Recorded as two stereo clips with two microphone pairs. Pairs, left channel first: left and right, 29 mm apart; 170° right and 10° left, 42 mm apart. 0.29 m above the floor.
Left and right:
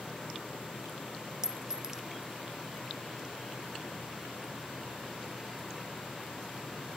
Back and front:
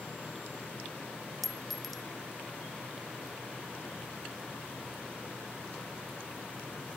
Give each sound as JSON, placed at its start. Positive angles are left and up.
{"t": 1.4, "sound": "a clink", "azimuth_deg": -90, "distance_m": 0.9}